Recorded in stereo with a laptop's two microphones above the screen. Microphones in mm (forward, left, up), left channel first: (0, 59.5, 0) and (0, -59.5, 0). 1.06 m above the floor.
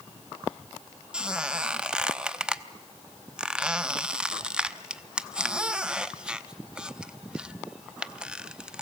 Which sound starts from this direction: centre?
A squeak, at 1.1 s.